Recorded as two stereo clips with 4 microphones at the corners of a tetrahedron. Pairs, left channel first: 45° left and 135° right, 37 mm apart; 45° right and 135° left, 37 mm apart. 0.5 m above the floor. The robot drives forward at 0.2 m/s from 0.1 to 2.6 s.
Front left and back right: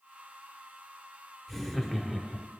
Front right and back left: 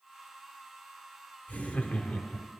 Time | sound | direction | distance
1.5 | laughter | 45° right | 0.9 m